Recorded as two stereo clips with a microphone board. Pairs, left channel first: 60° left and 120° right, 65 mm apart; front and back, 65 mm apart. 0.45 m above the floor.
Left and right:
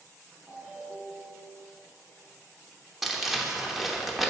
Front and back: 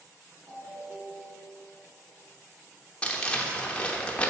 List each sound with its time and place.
0.5 s a ringtone: 175° left, 2.5 m
3.0 s crumpling: 35° right, 0.9 m